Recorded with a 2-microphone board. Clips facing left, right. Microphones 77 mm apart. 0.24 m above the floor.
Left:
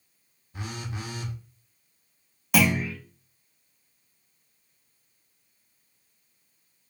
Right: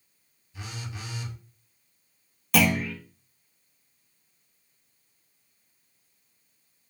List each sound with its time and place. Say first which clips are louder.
0.5 s a phone buzzing: left 4 dB; 50° left (ahead or behind), 0.6 m
2.5 s a clunk: even; 5° left (ahead or behind), 0.9 m